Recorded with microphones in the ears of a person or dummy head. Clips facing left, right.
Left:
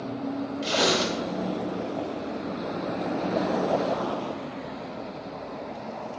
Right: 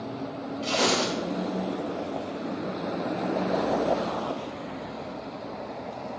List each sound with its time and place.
0.6 s tearing paper: 25° left (ahead or behind), 3 m